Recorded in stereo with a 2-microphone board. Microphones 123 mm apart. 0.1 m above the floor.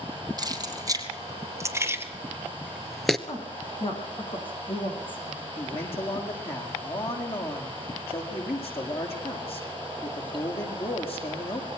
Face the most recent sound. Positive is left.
turn(degrees=50)  # may be behind; listen again after turning